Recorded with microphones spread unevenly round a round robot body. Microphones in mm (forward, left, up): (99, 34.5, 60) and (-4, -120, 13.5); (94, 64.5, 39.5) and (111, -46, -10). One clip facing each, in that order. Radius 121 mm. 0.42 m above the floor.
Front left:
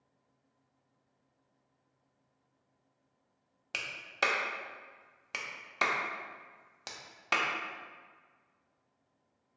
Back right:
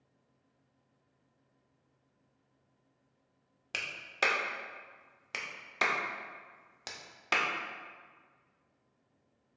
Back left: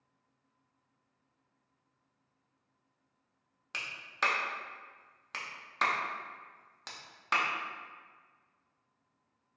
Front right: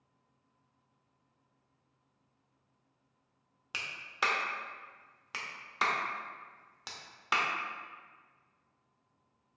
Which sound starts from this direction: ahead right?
A clap, at 3.7 s.